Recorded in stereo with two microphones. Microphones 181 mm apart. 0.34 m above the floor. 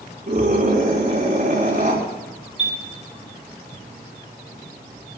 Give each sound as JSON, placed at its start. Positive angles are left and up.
{"t": 0.3, "sound": "a scream", "side_deg": -60, "distance_m": 4.0}
{"t": 2.6, "sound": "a chime", "side_deg": -40, "distance_m": 3.0}